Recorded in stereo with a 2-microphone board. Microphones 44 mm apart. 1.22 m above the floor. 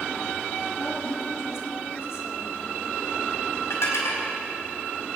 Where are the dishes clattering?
85° left, 4.5 m.